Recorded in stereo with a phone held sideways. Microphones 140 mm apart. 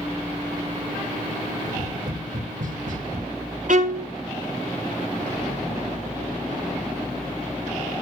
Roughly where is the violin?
Right.